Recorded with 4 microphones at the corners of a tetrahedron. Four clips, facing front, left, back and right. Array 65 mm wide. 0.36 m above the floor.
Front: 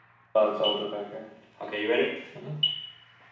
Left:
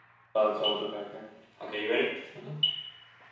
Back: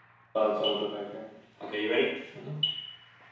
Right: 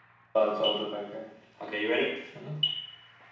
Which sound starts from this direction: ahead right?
An alarm, at 0.3 s.